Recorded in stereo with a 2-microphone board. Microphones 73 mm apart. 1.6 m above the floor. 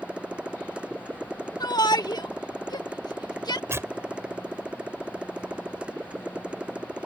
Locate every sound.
0.0 s a motorcycle: 15° right (ahead or behind)
1.6 s a shout: 70° left (ahead or behind)
3.7 s tearing paper: 35° right (ahead or behind)